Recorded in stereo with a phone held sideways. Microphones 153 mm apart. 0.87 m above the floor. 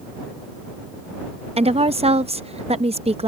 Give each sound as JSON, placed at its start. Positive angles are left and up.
{"t": 1.6, "sound": "a woman speaking", "side_deg": -40}